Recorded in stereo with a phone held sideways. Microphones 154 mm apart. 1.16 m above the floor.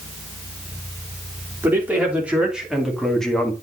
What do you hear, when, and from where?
1.6 s a man speaking: 10° right (ahead or behind), 3.5 m; by 3.5 s 10° left (ahead or behind), 1.9 m